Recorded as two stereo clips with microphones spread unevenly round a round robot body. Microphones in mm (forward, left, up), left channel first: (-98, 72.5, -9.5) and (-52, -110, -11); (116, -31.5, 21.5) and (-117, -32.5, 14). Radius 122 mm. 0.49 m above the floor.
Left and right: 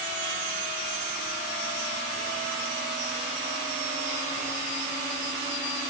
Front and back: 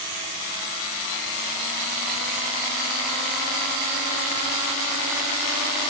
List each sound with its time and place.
Only background noise.